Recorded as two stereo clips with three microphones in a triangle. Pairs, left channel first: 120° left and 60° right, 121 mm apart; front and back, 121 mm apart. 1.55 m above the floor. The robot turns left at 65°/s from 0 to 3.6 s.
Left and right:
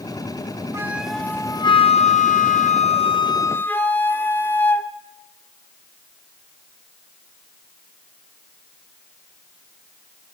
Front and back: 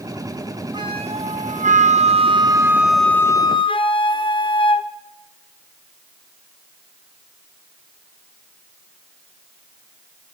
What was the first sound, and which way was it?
A flute, 125° right.